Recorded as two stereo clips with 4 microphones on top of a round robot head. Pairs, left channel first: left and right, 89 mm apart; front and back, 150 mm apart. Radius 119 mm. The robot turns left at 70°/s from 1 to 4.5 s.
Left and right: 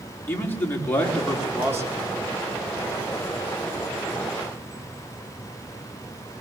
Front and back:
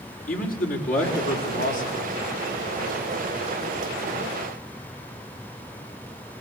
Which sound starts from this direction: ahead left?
A man speaking, at 0.3 s.